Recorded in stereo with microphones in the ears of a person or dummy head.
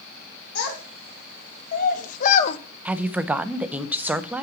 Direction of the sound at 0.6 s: 55° left (ahead or behind).